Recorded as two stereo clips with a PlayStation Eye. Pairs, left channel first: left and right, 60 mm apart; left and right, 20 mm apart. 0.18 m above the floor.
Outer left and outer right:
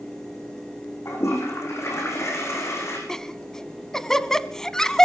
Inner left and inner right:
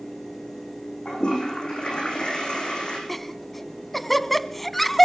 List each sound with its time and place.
1.1 s a toilet flushing: 50° left (ahead or behind), 8.5 m
3.1 s laughter: 10° left (ahead or behind), 1.2 m